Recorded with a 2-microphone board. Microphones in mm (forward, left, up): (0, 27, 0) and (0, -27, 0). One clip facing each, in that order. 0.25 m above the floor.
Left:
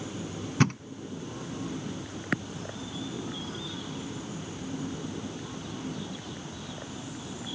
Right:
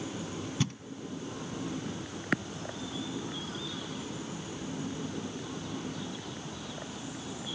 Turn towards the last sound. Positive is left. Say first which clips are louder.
# left 9 dB
turn(degrees=60)  # may be behind; listen again after turning